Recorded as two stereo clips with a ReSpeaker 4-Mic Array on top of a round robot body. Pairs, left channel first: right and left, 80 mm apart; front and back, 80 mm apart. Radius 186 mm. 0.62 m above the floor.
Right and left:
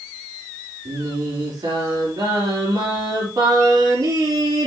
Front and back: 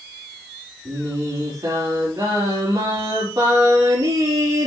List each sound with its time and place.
0.8 s singing: 135° left, 4 m